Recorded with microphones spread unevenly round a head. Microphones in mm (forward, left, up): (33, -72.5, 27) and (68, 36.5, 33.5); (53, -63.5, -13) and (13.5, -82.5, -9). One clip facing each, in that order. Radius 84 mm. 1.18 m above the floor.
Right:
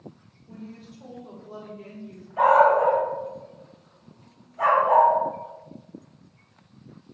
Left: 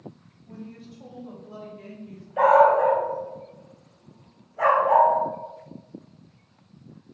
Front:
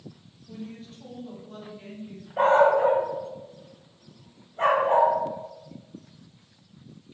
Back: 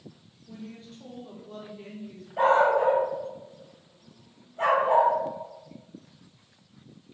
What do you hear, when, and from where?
0.5 s a woman speaking: 125° left, 3 m; by 2.3 s 105° left, 2 m
2.4 s a dog barking: 100° left, 2.5 m